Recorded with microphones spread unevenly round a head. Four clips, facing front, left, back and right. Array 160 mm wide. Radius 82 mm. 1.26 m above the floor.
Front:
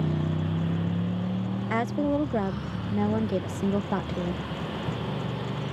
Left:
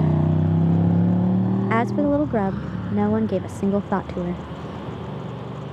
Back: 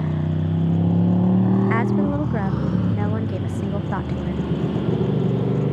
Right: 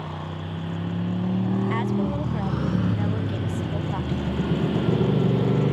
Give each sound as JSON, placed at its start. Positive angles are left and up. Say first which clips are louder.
{"t": 0.0, "sound": "a motorcycle", "louder": "left 12 dB, back 4 dB", "azimuth_deg": 105}
{"t": 1.7, "sound": "a woman speaking", "louder": "left 6 dB, back 5 dB", "azimuth_deg": 70}